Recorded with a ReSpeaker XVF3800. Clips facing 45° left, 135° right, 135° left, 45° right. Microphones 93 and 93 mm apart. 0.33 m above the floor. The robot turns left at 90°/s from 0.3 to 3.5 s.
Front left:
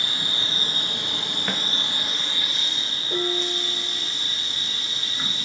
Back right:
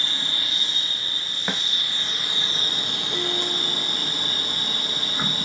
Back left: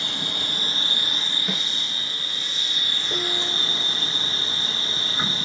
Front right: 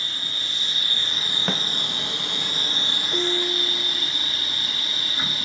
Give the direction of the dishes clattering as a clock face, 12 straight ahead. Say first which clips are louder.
Front left 3 dB, front right 4 dB; 8 o'clock.